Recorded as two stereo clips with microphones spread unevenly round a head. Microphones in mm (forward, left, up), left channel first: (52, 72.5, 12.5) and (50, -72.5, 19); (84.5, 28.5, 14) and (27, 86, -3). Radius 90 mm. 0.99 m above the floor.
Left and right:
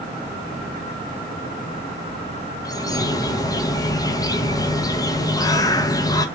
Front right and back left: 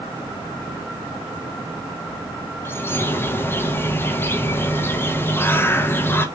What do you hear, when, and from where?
2.6 s a bird: 20° left, 0.5 m